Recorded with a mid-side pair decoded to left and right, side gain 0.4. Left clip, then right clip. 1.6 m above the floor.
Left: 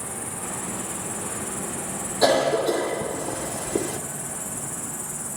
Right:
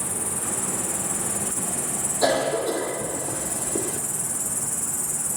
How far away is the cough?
About 3 m.